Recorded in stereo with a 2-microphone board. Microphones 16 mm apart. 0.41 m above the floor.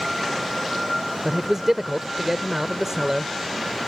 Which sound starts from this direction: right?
A man speaking, at 1.2 s.